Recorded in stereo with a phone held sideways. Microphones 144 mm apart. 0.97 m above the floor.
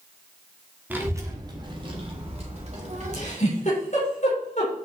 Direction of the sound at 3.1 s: 55° left (ahead or behind).